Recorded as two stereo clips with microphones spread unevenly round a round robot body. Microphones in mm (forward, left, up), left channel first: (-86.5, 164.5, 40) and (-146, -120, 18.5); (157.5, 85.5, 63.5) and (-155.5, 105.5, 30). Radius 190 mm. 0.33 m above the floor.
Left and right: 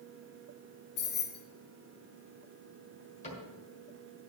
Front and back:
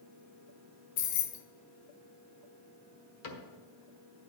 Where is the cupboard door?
10° left, 1.7 m.